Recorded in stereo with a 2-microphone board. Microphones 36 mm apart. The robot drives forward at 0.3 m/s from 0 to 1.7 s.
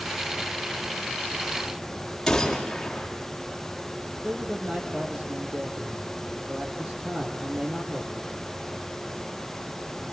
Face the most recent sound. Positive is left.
turn(degrees=-40)  # may be behind; listen again after turning